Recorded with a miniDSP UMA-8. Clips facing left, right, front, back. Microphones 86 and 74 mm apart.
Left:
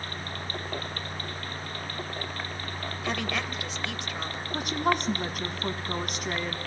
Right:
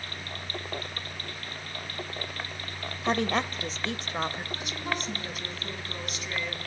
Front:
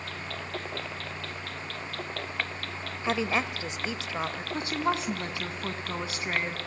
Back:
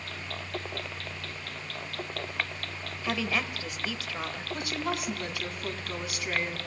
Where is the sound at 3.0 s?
55° right, 1.4 m.